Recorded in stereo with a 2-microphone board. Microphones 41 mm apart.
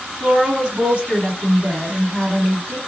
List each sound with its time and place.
0.2 s a woman speaking: 35° right (ahead or behind), 1.9 m